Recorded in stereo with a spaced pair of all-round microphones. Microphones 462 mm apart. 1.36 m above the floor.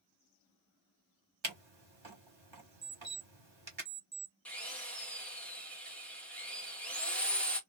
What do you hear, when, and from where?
1.4 s a camera shutter: 75° right (ahead or behind), 1.2 m
2.8 s an alarm clock: 45° right (ahead or behind), 0.8 m
4.5 s a drill: 5° left (ahead or behind), 0.8 m